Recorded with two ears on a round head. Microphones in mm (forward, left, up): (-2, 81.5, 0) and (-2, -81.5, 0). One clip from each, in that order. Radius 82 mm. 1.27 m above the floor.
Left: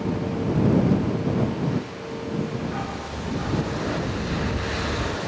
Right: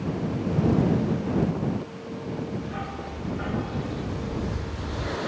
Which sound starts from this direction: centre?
A dog barking, at 2.6 s.